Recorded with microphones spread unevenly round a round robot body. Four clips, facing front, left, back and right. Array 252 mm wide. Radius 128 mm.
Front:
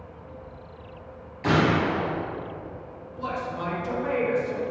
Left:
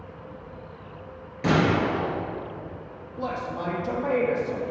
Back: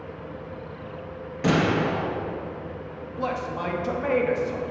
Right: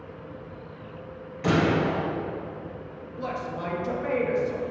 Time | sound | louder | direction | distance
1.4 | a gunshot | left 1 dB, even | 150° left | 2 m
3.2 | a man speaking | left 2 dB, back 2 dB | 135° left | 1.2 m